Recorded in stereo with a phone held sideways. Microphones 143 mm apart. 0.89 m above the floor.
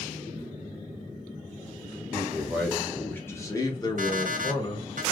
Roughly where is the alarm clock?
Right.